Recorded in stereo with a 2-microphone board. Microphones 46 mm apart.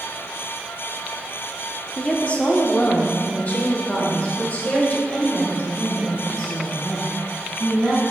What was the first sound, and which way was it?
A woman speaking, 25° left (ahead or behind).